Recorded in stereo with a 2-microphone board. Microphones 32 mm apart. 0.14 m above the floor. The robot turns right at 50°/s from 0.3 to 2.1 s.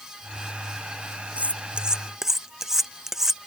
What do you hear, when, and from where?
1.4 s cutlery clinking: 50° right (ahead or behind); by 3.4 s 15° right (ahead or behind)